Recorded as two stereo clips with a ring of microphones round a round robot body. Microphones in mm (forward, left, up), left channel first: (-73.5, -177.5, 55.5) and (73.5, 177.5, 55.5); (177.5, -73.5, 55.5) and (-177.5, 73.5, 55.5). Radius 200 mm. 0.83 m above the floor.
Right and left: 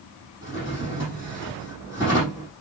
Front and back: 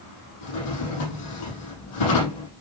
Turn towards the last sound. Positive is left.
turn(degrees=-15)